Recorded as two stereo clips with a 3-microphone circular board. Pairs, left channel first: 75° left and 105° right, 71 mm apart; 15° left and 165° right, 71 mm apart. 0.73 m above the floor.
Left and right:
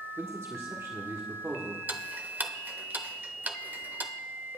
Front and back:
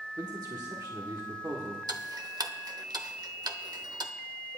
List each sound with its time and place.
0.2 s a man speaking: 150° right, 1.3 m
1.9 s ticking: 170° right, 0.7 m